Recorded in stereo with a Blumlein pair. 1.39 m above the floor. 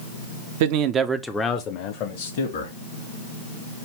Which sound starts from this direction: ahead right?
A man speaking, at 0.6 s.